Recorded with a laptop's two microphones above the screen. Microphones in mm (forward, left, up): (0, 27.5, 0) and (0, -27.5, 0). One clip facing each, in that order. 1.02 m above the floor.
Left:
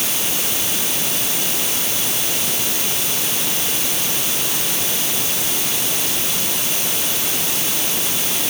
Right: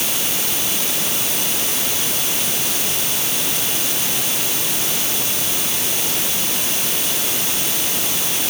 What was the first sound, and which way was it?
Only background noise.